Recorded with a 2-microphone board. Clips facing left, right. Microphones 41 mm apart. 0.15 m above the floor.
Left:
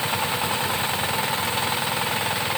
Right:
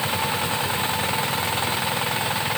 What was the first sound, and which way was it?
Only background noise.